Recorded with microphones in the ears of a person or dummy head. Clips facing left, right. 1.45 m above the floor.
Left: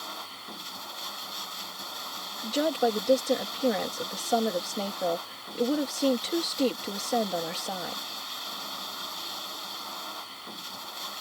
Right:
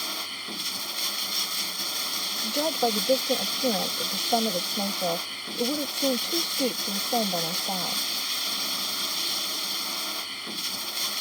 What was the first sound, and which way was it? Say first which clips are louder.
Running water: right 3 dB; 35° right (ahead or behind).